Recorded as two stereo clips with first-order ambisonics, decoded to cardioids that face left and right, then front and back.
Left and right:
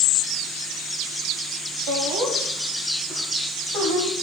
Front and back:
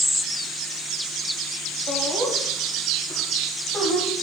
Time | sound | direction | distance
1.9 | laughter | 105° right | 5 m